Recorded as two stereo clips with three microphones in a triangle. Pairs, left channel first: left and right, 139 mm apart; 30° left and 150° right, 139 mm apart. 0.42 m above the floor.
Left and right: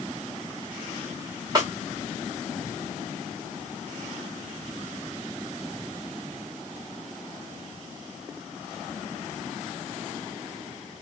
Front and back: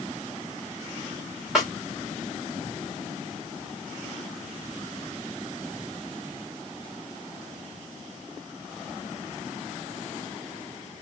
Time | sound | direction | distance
1.6 | a snare drum | 65° right | 1.5 m